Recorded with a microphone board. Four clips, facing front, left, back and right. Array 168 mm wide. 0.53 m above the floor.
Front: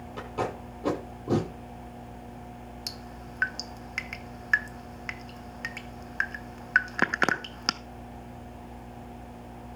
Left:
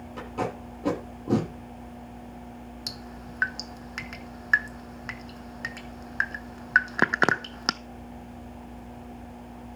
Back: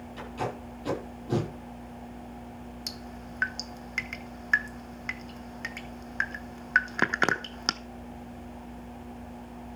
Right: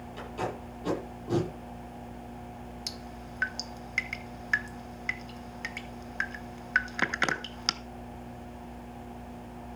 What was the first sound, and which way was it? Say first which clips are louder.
Tape being pulled: left 4 dB, front 2 dB; 50° left.